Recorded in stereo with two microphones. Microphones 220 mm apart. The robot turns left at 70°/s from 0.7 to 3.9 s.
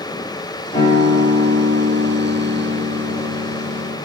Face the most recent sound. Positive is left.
turn(degrees=170)